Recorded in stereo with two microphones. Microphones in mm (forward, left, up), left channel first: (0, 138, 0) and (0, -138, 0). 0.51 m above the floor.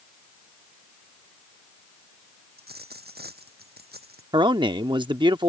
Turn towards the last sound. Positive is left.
turn(degrees=-15)  # may be behind; listen again after turning